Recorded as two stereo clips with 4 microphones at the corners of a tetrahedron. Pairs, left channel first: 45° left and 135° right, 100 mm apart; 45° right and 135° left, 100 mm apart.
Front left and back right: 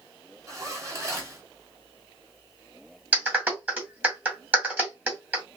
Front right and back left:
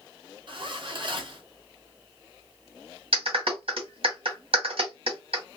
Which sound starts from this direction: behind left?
A clap, at 3.1 s.